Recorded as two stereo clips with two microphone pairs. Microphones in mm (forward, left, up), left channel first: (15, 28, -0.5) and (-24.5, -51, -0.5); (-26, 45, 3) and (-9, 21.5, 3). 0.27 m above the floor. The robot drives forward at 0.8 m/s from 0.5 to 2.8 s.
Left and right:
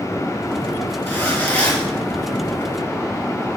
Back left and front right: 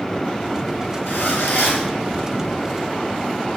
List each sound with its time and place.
1.1 s a zipper: 135° left, 5.5 m; by 1.9 s 140° left, 6 m